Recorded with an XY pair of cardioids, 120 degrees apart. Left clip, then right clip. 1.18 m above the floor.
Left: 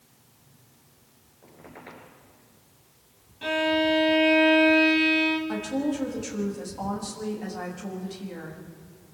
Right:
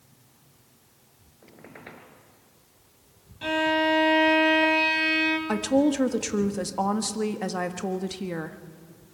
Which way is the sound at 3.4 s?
10° right.